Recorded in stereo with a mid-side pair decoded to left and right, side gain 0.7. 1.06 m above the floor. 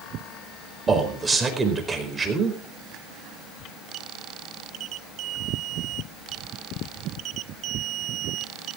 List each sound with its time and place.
0.9 s a man speaking: 20° right, 4.5 m